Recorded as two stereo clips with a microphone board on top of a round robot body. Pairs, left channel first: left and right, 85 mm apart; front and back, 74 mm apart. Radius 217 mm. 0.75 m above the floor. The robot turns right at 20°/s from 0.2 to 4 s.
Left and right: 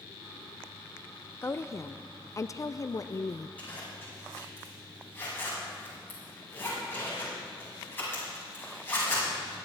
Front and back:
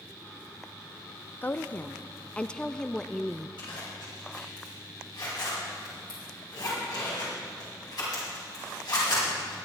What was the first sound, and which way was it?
A woman speaking, 45° left.